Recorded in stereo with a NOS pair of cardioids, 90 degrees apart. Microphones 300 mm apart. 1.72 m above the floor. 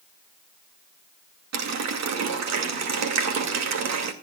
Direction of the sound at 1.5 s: 65° right.